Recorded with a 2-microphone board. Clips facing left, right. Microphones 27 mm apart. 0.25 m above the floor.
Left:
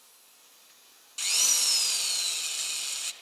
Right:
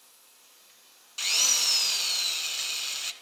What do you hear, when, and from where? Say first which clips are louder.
1.2 s a drill: right 2 dB; 10° right (ahead or behind), 1.3 m